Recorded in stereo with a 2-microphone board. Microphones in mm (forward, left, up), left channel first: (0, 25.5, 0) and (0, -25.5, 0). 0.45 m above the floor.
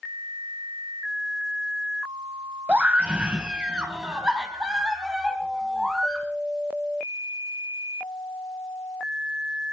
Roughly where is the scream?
Right.